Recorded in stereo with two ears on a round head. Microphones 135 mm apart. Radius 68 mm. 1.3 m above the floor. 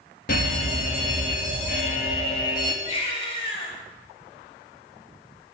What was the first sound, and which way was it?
A fire alarm, 60° left (ahead or behind).